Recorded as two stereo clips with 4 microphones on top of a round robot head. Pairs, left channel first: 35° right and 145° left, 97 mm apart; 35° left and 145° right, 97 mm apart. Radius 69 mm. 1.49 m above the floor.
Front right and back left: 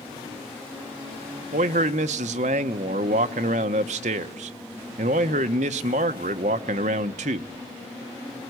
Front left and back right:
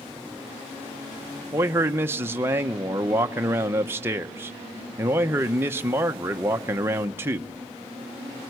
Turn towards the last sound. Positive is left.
turn(degrees=145)